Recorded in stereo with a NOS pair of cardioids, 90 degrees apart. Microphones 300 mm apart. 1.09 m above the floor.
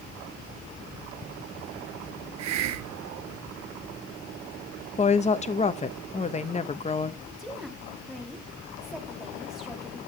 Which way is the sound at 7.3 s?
Straight ahead.